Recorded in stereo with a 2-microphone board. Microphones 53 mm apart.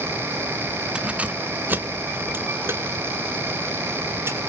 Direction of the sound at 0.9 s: 20° right (ahead or behind).